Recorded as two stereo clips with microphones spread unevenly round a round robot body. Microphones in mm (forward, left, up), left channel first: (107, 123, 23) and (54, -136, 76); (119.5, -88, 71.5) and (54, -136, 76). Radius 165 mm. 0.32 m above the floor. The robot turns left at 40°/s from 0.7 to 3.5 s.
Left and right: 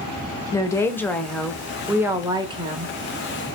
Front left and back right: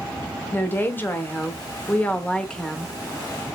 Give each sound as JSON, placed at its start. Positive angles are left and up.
{"t": 0.5, "sound": "a woman speaking", "azimuth_deg": 45, "distance_m": 0.9}